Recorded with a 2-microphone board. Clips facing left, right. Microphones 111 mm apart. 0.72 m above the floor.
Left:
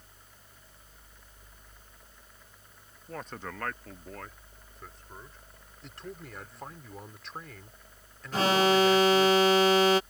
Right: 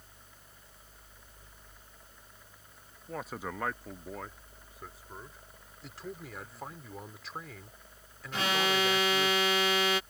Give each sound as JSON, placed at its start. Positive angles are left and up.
{"t": 3.1, "sound": "a man speaking", "side_deg": -5}
{"t": 5.8, "sound": "a man speaking", "side_deg": 0}
{"t": 8.3, "sound": "an alarm", "side_deg": 35}